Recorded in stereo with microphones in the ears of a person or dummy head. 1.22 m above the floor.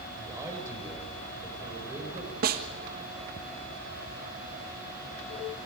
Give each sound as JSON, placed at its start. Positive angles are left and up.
{"t": 0.1, "sound": "a man speaking", "side_deg": -20, "distance_m": 6.0}
{"t": 2.4, "sound": "a snare drum", "side_deg": -45, "distance_m": 1.4}